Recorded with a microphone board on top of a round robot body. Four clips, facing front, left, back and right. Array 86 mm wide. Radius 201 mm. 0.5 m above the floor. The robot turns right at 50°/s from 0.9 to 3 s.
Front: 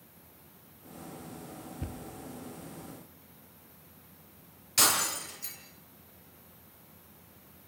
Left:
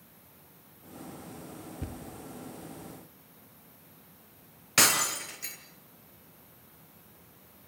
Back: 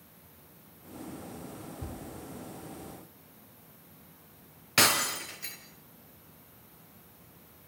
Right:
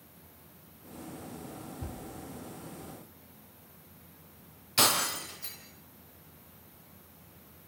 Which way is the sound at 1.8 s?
40° left.